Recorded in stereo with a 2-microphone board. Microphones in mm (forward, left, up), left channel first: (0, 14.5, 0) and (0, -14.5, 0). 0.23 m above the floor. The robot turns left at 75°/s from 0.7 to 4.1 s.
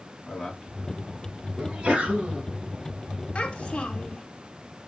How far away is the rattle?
No rattle in this recording.